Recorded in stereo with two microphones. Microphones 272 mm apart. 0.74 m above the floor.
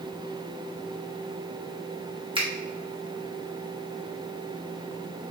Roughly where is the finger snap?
Centre.